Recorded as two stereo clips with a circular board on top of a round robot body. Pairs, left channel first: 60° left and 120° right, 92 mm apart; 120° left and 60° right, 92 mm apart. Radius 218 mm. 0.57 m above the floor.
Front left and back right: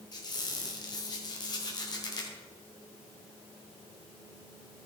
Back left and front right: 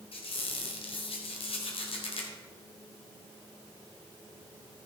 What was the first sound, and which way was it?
A squeak, 105° left.